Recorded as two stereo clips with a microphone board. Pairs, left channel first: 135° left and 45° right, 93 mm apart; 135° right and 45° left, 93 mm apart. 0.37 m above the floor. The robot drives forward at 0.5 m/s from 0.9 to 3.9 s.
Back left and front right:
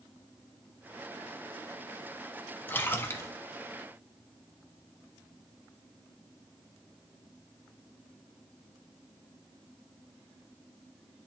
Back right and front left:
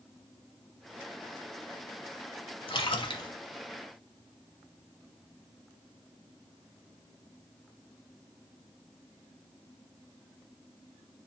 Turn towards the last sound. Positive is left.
turn(degrees=-170)